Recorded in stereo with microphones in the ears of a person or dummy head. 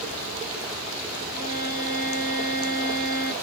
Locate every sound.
1.3 s a violin: 25° right (ahead or behind), 1.3 m